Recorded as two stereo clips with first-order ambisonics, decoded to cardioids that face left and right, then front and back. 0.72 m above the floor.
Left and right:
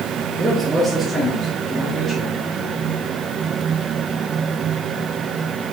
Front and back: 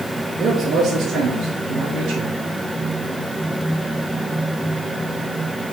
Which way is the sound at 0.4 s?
145° right.